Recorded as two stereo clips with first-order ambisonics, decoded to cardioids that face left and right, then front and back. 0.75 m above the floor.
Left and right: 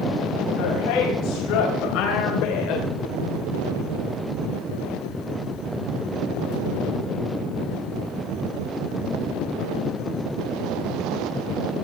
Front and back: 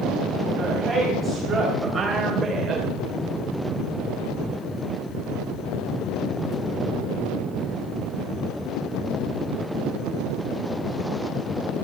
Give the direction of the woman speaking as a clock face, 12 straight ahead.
9 o'clock.